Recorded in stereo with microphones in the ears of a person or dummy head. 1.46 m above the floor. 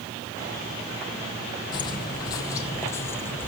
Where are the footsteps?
30° left (ahead or behind), 2.5 m; by 3.5 s 10° left (ahead or behind), 2 m.